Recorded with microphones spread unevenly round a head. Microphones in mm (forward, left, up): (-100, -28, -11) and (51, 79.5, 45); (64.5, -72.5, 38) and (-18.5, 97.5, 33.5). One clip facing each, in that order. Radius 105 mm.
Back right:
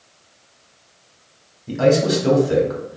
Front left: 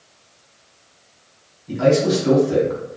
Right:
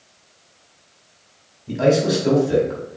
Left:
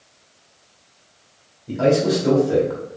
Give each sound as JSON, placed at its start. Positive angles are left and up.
{"t": 1.7, "sound": "a man speaking", "azimuth_deg": -140, "distance_m": 1.7}